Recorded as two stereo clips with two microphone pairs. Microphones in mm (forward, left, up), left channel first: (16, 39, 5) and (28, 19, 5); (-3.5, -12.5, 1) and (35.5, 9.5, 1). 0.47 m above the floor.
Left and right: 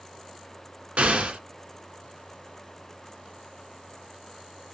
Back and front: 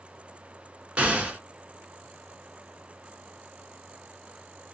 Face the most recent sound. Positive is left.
turn(degrees=-35)